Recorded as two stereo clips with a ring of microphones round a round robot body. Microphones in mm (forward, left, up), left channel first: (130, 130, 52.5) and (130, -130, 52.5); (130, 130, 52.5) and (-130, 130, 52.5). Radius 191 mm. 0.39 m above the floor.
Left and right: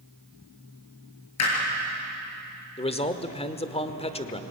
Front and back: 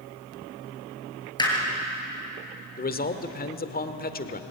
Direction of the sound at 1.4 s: 75° left.